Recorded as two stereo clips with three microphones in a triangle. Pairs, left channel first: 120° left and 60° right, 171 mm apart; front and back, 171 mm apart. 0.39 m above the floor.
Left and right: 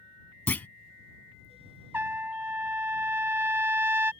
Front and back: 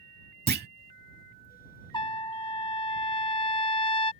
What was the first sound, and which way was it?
A clunk, 160° right.